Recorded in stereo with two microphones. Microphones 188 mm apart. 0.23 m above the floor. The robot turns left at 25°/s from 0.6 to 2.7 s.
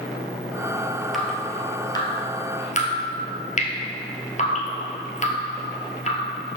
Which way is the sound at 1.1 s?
Centre (ahead or behind).